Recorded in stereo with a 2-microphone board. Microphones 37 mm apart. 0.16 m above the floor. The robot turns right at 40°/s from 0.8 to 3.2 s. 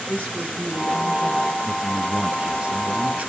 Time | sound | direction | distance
0.1 | a woman speaking | 60° right (ahead or behind) | 4.5 m
1.6 | a man speaking | 170° right | 1.4 m